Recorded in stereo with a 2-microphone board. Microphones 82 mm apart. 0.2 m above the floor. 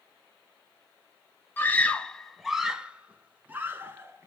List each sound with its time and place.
1.6 s a scream: 25° left (ahead or behind), 1.1 m; by 4.3 s 30° right (ahead or behind), 2.5 m